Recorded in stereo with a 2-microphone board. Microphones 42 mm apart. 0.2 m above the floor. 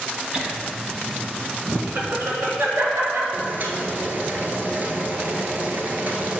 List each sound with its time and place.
0.3 s laughter: 20° right (ahead or behind), 1.1 m; by 3.2 s 70° right (ahead or behind), 3 m
3.3 s boiling: 45° right (ahead or behind), 1.2 m